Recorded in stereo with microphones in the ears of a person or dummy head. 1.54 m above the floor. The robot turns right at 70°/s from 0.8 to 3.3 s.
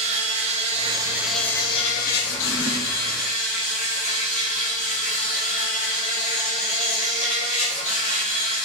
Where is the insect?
40° right, 1.0 m; by 8.7 s 135° left, 1.0 m.